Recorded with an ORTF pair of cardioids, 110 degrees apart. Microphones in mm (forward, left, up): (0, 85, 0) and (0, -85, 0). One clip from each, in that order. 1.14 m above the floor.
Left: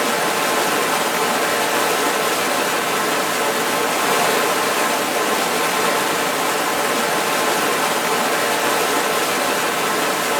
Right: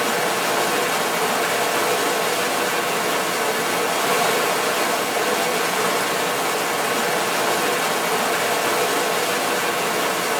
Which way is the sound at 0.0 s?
15° left.